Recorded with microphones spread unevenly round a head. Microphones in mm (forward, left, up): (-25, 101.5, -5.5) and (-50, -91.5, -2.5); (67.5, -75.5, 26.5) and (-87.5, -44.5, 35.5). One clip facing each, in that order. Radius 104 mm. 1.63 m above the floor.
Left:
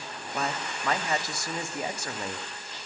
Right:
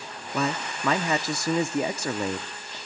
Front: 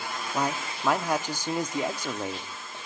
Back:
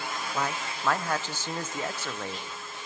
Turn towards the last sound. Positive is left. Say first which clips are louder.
# right 5 dB, front 4 dB
turn(degrees=-90)